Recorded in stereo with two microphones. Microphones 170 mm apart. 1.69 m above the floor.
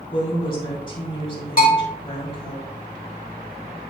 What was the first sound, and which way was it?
A woman speaking, 30° left (ahead or behind).